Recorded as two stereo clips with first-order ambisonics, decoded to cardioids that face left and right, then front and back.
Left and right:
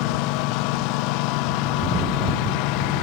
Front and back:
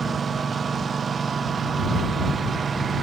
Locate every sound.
0.0 s a lawn mower: 110° left